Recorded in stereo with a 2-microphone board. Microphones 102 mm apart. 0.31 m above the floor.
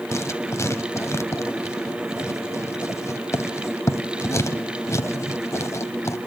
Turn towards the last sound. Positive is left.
turn(degrees=30)  # may be behind; listen again after turning